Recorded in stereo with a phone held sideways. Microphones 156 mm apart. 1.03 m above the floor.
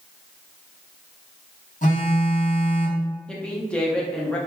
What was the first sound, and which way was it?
A phone buzzing, 50° left (ahead or behind).